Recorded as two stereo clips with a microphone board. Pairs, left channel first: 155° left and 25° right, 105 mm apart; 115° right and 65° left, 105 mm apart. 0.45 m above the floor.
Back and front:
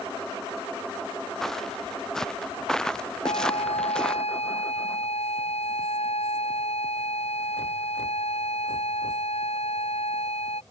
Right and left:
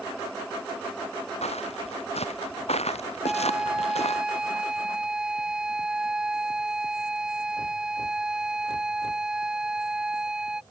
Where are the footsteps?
115° right; by 4.2 s 120° right.